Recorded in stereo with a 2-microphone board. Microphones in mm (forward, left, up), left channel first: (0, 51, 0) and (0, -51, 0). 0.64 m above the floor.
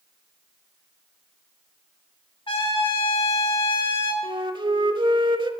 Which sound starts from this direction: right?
A flute, at 4.2 s.